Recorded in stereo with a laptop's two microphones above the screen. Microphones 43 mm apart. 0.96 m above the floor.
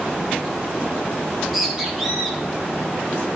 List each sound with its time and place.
1.2 s a bird: 5° right (ahead or behind), 3.5 m